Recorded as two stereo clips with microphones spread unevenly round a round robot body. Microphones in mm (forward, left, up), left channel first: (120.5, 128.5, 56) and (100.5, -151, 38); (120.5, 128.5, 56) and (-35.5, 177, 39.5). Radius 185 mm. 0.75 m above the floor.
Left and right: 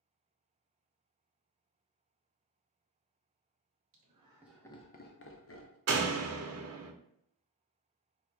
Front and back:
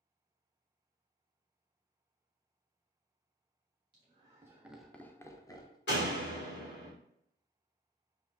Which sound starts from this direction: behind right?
Laughter, at 3.9 s.